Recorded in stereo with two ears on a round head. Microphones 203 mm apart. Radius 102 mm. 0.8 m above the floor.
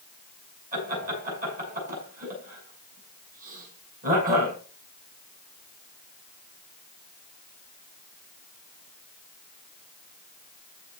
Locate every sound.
0.7 s laughter: 40° right (ahead or behind), 8 m